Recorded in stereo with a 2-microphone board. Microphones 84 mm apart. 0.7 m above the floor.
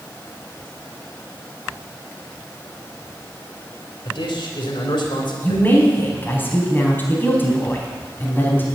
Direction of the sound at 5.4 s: 25° left (ahead or behind).